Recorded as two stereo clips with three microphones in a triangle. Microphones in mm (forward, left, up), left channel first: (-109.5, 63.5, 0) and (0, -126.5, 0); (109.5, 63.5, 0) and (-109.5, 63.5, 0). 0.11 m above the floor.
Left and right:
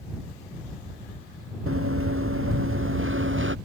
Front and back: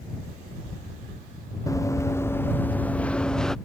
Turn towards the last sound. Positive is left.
turn(degrees=-90)